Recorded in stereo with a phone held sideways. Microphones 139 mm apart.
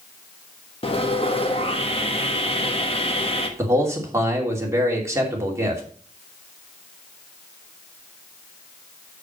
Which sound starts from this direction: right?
A man speaking, at 3.6 s.